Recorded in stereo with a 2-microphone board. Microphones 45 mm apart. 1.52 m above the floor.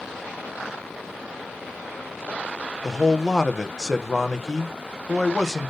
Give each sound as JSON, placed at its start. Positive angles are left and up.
{"t": 2.8, "sound": "a man speaking", "side_deg": 10, "distance_m": 1.3}